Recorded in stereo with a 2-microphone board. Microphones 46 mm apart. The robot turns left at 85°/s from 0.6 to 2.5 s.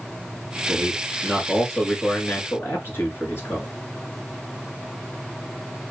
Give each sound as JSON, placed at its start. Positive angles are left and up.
{"t": 0.7, "sound": "a man speaking", "azimuth_deg": -100, "distance_m": 1.9}